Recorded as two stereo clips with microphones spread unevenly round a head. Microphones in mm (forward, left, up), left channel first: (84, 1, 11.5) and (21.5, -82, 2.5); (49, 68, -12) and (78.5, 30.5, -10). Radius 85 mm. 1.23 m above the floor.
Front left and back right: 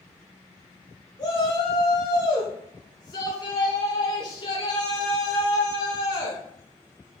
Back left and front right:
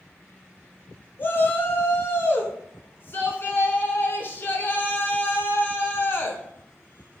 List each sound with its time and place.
1.2 s a shout: 105° left, 0.8 m